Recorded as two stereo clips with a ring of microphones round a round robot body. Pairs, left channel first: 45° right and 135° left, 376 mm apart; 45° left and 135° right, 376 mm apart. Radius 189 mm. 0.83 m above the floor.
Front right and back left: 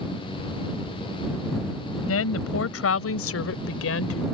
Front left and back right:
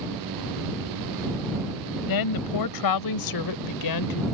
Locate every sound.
2.1 s a woman speaking: 10° left